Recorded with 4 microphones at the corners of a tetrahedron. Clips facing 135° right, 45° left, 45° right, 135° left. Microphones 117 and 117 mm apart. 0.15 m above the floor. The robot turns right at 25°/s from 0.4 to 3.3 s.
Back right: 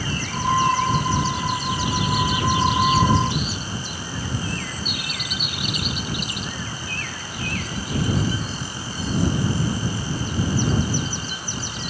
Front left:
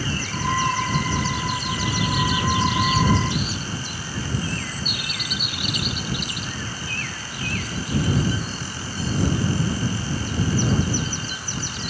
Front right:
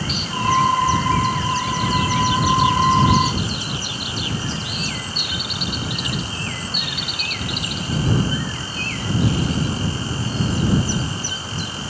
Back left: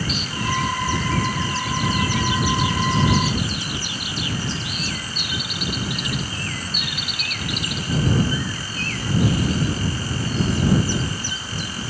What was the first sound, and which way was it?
Only background noise.